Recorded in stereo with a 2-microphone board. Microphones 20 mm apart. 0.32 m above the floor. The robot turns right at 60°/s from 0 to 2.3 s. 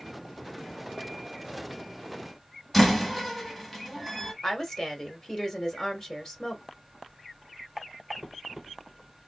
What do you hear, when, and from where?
2.7 s a door slam: 10° left (ahead or behind), 1.2 m
4.4 s a woman speaking: 25° left (ahead or behind), 1.1 m